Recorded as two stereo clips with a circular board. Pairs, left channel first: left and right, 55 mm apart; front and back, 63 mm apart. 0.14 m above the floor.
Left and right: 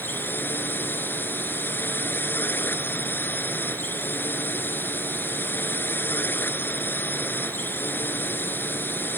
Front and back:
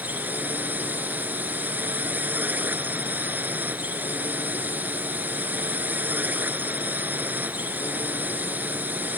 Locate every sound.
0.0 s a drone: 125° left